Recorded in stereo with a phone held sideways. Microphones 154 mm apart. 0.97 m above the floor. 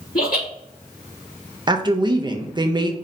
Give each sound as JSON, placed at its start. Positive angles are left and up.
{"t": 0.1, "sound": "laughter", "side_deg": 70, "distance_m": 2.0}
{"t": 1.7, "sound": "a woman speaking", "side_deg": -30, "distance_m": 0.5}